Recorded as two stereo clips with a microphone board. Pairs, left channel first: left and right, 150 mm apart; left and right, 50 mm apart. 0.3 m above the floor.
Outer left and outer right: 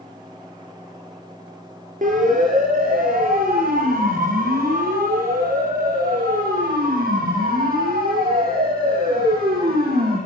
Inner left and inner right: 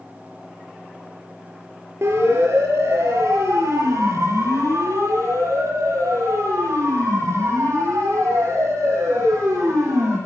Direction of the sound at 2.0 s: 65° right (ahead or behind).